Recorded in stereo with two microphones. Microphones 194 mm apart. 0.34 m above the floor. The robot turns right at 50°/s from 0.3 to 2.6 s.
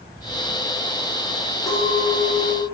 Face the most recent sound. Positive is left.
turn(degrees=-150)